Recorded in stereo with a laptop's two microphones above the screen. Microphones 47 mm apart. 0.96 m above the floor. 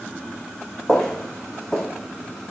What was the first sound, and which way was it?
Footsteps, 10° left (ahead or behind).